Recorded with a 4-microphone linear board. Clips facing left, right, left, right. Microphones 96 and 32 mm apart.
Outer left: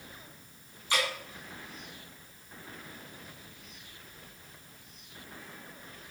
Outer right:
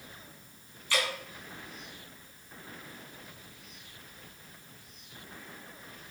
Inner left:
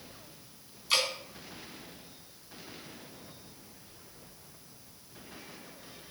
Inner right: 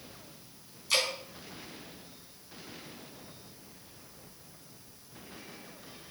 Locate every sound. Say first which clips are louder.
0.9 s dripping: outer left 1 dB, even; 20° left (ahead or behind), 3.5 m